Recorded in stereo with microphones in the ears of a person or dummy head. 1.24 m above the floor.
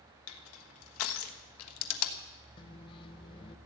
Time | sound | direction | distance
0.3 | crushing | 80° left | 1.4 m
2.6 | a microwave | 30° left (ahead or behind) | 0.7 m